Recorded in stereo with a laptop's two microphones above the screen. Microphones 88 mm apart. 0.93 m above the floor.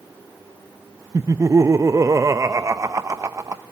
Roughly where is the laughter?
Right.